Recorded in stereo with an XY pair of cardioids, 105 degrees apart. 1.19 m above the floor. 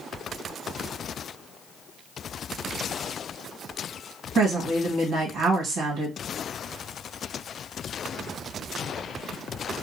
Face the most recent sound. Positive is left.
turn(degrees=-70)